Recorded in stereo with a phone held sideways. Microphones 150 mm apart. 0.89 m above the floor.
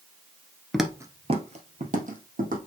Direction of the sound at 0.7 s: 5° left (ahead or behind).